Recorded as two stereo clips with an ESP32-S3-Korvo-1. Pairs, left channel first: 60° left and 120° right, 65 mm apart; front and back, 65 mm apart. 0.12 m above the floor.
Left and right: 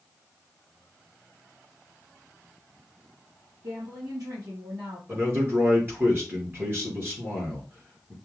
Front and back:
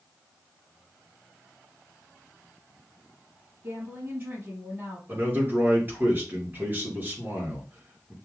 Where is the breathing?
I don't hear breathing.